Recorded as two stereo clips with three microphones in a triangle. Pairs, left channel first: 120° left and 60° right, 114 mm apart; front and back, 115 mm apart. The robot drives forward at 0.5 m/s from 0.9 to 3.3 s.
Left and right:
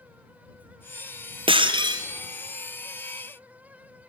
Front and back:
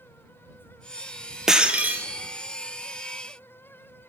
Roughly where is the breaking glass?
Right.